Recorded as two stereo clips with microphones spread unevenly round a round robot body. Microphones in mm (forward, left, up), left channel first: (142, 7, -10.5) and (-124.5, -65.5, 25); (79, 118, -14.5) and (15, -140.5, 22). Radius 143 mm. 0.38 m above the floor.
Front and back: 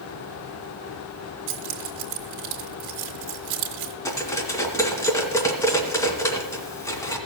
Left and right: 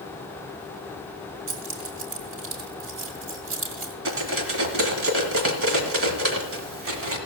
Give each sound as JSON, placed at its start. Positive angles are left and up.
{"t": 1.5, "sound": "keys jangling", "azimuth_deg": -150, "distance_m": 1.7}
{"t": 4.0, "sound": "cutlery clinking", "azimuth_deg": -65, "distance_m": 2.0}